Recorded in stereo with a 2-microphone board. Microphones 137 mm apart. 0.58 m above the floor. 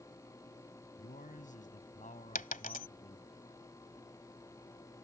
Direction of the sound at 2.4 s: 85° left.